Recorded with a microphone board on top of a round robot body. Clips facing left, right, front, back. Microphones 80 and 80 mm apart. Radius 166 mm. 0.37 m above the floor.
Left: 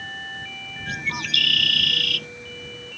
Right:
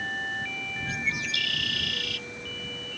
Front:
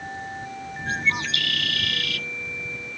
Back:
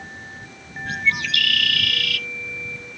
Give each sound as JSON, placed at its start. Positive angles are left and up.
{"t": 0.9, "sound": "a bird", "azimuth_deg": 60}